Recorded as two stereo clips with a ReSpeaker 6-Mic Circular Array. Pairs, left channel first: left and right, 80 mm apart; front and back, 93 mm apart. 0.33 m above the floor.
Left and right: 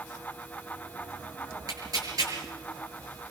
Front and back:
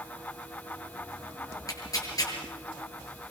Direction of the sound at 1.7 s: 50° right.